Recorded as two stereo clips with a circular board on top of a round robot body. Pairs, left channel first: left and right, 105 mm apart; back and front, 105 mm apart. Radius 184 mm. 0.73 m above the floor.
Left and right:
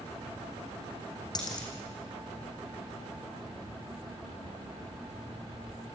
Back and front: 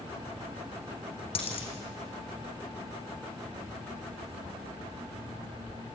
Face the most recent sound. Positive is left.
turn(degrees=145)